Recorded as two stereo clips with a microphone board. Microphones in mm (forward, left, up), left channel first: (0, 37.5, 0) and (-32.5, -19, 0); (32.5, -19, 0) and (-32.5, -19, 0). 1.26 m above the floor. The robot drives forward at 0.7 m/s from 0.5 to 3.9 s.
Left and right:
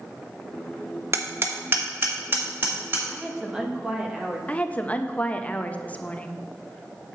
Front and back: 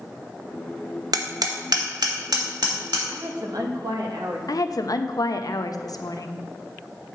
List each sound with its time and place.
1.1 s hammering: 165° right, 0.8 m; by 3.0 s 175° right, 2 m
3.1 s a woman speaking: 150° left, 0.8 m; by 4.4 s 165° left, 1.3 m
4.5 s a woman speaking: 5° right, 0.6 m